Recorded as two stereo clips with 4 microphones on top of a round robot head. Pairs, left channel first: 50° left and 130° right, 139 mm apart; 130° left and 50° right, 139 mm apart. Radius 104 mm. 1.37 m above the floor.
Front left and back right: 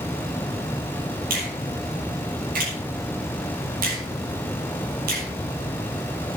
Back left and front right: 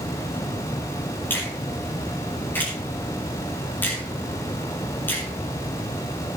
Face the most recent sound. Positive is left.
turn(degrees=-150)